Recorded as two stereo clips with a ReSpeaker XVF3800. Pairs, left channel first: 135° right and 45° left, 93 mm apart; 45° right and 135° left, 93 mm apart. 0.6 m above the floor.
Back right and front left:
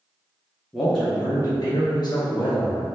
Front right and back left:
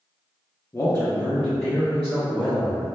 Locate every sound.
0.7 s a man speaking: 40° right, 0.6 m; by 2.9 s 150° right, 1.1 m